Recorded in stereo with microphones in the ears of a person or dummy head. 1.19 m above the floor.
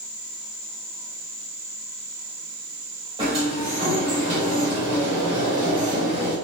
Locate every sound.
3.2 s a sliding door: 30° right (ahead or behind), 1.6 m